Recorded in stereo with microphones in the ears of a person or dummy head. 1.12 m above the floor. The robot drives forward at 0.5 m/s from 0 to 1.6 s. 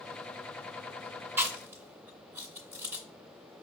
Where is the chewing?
10° right (ahead or behind), 0.5 m; by 3.0 s 15° right (ahead or behind), 0.5 m.